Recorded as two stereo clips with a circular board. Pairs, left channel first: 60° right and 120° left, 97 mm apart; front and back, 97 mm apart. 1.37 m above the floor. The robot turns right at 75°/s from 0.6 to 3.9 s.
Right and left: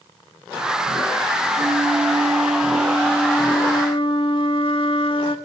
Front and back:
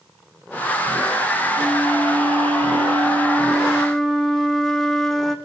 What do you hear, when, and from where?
1.6 s a flute: 100° left, 2.0 m; by 5.3 s 85° right, 2.0 m